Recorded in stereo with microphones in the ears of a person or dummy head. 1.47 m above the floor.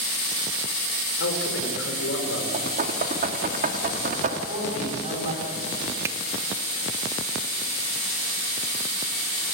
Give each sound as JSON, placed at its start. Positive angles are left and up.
{"t": 1.2, "sound": "a man speaking", "side_deg": 75, "distance_m": 5.0}
{"t": 2.5, "sound": "knocking", "side_deg": -50, "distance_m": 2.0}
{"t": 4.5, "sound": "a man speaking", "side_deg": -40, "distance_m": 8.0}
{"t": 6.0, "sound": "a finger snap", "side_deg": -15, "distance_m": 1.4}